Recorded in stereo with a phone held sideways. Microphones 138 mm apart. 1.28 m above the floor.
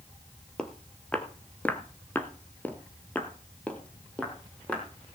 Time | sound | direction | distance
0.6 | footsteps | 5° left (ahead or behind) | 1.8 m